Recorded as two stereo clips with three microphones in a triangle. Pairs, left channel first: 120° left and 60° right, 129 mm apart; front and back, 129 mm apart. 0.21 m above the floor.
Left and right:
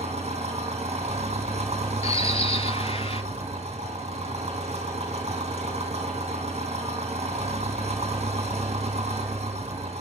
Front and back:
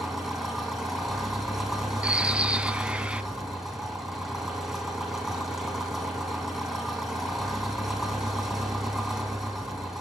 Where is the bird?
100° left, 0.6 m.